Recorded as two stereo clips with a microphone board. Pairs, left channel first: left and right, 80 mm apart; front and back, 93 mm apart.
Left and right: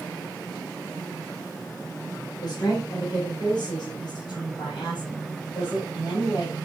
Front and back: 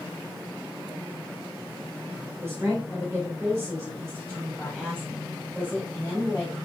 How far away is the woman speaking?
About 4 m.